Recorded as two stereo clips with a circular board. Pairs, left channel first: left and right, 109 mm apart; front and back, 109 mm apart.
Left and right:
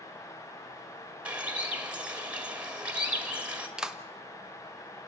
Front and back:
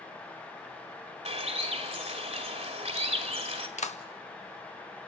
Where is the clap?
5° right, 1.1 m.